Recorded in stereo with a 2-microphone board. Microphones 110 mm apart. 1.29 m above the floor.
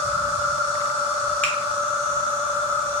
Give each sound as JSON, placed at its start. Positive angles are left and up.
{"t": 0.0, "sound": "an insect", "side_deg": -20, "distance_m": 2.5}
{"t": 1.4, "sound": "a finger snap", "side_deg": 10, "distance_m": 1.3}